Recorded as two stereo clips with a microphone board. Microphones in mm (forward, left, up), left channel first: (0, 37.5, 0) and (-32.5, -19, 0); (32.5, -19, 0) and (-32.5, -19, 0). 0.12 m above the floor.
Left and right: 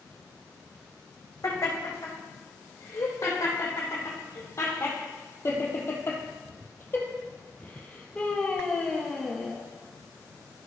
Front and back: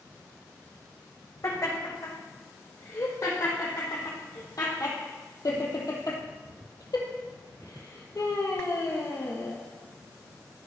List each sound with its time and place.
1.4 s laughter: 25° left, 5.5 m; by 9.6 s 30° right, 2 m